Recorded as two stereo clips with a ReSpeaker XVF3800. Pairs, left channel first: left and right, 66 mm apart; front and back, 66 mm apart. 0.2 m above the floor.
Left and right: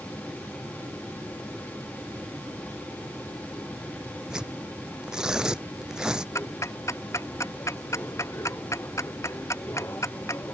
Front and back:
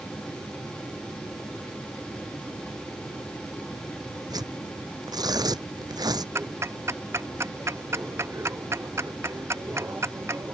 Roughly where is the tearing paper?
Behind.